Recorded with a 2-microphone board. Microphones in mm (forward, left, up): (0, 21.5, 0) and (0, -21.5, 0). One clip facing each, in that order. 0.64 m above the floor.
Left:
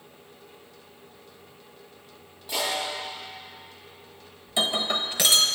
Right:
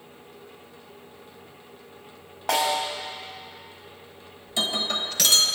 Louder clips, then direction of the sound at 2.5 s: Right 5 dB; 60° right (ahead or behind).